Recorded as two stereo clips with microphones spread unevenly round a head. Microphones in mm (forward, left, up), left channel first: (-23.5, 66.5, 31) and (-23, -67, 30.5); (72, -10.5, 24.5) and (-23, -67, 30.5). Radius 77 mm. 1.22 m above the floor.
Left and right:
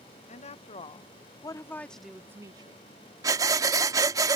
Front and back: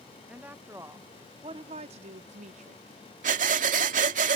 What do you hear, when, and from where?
0.3 s a woman speaking: 130° left; by 2.8 s 140° right
3.2 s breathing: 155° right